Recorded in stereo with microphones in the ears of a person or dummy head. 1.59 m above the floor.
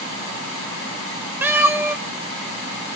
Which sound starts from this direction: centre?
A cat meowing, at 1.4 s.